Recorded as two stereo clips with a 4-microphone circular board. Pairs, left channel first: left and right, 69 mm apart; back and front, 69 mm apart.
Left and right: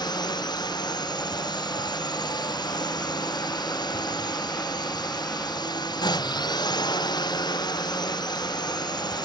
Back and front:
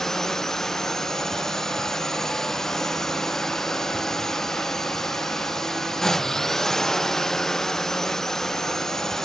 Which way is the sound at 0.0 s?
95° left.